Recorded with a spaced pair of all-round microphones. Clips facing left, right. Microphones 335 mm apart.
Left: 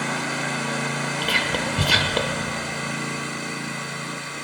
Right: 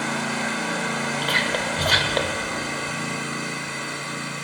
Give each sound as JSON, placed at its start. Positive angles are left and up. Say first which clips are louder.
{"t": 1.2, "sound": "whispering", "louder": "even", "side_deg": 40, "distance_m": 1.1}